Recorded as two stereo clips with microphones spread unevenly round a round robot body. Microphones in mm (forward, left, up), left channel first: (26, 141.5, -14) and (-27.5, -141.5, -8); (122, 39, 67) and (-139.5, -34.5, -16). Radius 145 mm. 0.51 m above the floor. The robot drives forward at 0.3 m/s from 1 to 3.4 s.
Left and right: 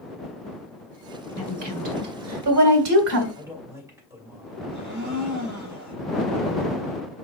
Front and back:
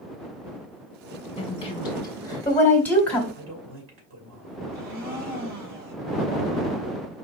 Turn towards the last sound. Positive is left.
turn(degrees=-160)